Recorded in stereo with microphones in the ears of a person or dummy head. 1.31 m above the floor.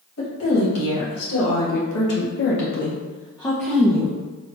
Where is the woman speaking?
85° left, 1.7 m; by 4.2 s 15° right (ahead or behind), 0.7 m.